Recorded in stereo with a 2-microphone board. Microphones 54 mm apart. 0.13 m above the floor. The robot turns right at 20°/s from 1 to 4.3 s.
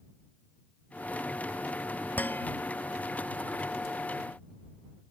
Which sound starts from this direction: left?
Dishes clattering, at 2.2 s.